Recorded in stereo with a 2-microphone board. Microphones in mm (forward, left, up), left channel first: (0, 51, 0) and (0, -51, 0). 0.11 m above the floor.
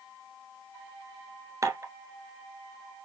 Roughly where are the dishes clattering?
Right.